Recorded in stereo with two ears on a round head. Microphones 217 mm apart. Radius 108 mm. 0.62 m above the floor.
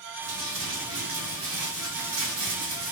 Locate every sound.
0.2 s crumpling: 50° right (ahead or behind), 2.5 m